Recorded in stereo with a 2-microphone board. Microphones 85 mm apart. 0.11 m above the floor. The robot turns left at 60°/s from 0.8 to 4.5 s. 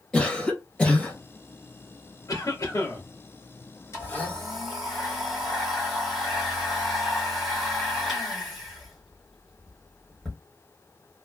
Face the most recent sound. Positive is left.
turn(degrees=0)